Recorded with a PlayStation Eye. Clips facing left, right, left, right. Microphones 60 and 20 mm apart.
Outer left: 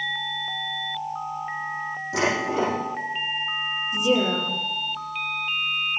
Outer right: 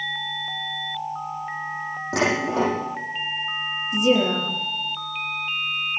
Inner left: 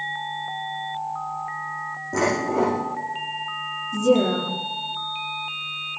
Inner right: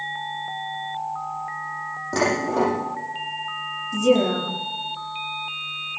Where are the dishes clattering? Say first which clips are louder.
Outer right 2 dB, even; 65° right (ahead or behind), 7.5 m.